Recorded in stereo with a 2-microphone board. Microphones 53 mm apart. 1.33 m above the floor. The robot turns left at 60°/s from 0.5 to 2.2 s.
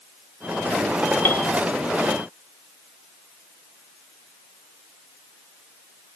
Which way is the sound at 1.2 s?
35° left (ahead or behind).